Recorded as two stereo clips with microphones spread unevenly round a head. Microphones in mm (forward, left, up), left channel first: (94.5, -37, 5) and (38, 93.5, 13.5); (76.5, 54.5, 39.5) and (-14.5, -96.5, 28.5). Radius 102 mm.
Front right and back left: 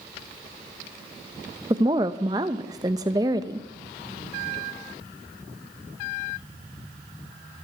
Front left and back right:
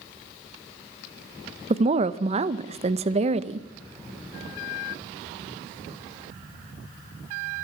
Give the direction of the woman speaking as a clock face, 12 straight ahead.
6 o'clock.